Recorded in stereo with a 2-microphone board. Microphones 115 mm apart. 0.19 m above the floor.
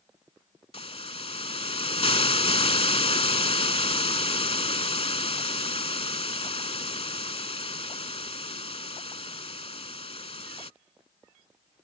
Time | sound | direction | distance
0.7 | a hiss | 60° left (ahead or behind) | ?